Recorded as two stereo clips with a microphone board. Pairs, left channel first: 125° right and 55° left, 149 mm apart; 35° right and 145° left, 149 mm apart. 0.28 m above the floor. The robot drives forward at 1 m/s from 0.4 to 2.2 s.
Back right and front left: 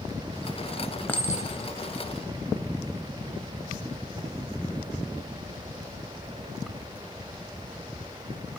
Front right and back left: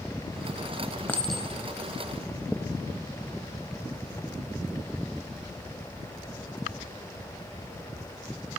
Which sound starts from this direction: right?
A clink, at 1.1 s.